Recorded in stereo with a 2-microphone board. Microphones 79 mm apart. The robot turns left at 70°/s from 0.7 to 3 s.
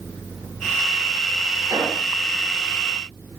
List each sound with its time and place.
1.7 s an explosion: 65° right (ahead or behind), 8 m; by 2.0 s 45° right (ahead or behind), 8 m